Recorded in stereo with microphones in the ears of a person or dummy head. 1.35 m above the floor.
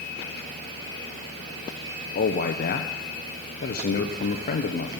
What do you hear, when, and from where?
2.1 s a man speaking: 45° left (ahead or behind), 0.6 m